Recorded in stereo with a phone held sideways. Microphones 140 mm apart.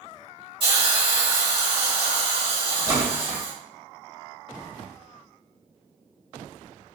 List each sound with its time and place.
0.6 s a hiss: 40° right (ahead or behind), 2.0 m
2.9 s a splash: 25° right (ahead or behind), 1.2 m